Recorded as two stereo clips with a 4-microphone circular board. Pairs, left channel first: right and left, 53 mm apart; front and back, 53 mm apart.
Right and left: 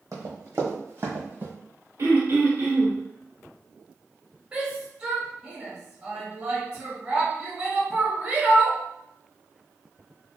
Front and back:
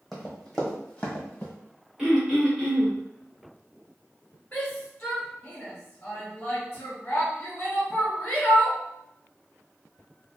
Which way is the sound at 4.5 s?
40° left.